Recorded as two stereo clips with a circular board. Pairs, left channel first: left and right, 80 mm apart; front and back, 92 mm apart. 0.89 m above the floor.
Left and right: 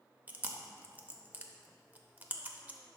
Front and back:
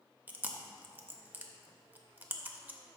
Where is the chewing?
130° right, 0.6 m.